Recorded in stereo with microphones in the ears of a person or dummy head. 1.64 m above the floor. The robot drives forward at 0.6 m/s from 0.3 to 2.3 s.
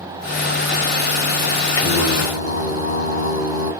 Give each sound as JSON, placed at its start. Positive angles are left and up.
{"t": 1.8, "sound": "singing", "side_deg": 15, "distance_m": 1.2}